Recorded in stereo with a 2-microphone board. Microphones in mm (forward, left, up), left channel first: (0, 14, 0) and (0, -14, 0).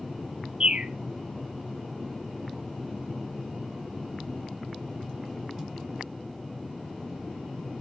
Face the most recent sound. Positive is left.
turn(degrees=-35)  # may be behind; listen again after turning